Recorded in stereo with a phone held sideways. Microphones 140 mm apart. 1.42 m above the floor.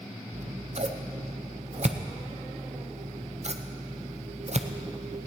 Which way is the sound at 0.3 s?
55° right (ahead or behind).